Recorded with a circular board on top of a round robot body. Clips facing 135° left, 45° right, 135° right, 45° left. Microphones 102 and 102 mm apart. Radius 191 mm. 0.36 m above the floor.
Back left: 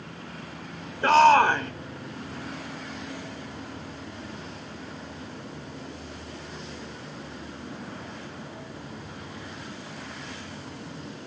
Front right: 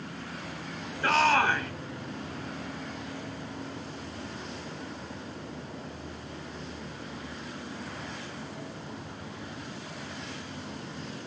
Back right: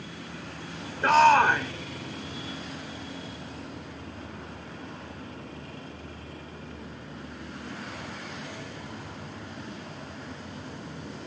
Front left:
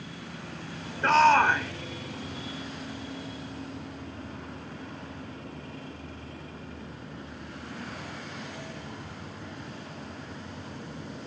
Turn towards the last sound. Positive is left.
turn(degrees=140)